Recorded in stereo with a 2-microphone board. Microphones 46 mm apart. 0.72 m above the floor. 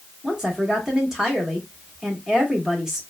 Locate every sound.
0.2 s a woman speaking: 10° right (ahead or behind), 1.3 m